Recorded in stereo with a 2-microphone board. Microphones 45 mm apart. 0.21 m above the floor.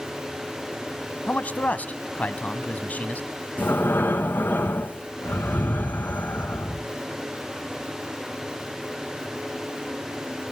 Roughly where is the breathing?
Left.